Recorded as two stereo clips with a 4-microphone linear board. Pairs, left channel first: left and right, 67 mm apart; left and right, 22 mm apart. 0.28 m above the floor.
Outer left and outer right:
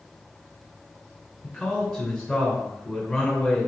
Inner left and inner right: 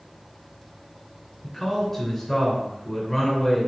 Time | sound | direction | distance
1.4 | a man speaking | 5° right (ahead or behind) | 2.5 m